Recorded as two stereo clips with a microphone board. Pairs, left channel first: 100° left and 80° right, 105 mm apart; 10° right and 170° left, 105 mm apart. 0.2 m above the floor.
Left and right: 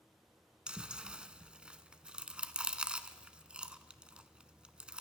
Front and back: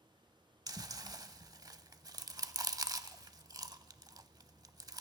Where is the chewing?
155° right, 0.5 m.